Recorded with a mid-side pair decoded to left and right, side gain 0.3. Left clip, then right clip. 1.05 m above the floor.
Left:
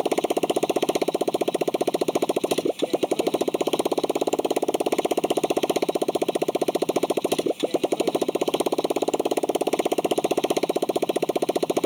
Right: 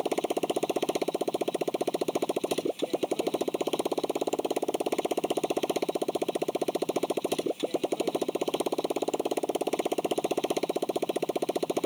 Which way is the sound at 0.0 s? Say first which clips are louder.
Left 6 dB; 55° left.